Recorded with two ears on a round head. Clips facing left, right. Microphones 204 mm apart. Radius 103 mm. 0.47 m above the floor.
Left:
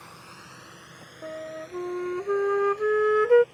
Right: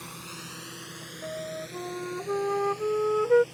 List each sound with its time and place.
0.0 s a drone: 45° right (ahead or behind); by 3.5 s 55° right (ahead or behind)
1.2 s a flute: 25° left (ahead or behind)